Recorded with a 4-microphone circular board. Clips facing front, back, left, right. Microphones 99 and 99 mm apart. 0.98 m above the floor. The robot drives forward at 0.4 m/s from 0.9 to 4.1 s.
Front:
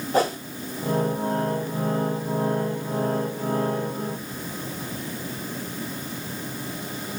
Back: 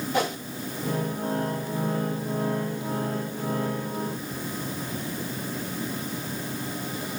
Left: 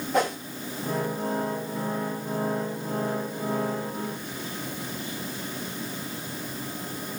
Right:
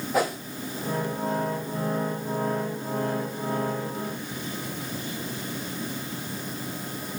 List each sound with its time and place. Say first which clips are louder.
0.1 s a whoosh: front 5 dB, even; 10° right, 0.7 m